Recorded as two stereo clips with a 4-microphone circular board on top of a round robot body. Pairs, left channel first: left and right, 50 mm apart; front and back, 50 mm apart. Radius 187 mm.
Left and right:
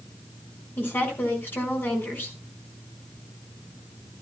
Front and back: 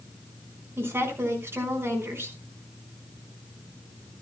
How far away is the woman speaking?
About 5 m.